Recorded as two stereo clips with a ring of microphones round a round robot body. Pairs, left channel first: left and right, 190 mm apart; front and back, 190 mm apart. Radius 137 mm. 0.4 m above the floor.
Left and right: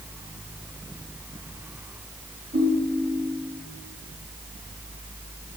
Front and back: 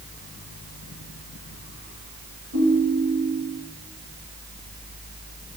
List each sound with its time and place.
2.5 s a ringtone: 150° right, 9 m